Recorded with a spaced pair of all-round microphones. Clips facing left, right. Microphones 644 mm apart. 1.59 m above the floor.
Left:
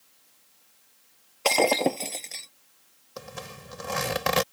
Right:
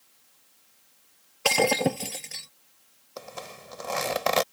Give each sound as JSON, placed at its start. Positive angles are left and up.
{"t": 1.4, "sound": "breaking glass", "side_deg": -40}
{"t": 3.2, "sound": "a zipper", "side_deg": 40}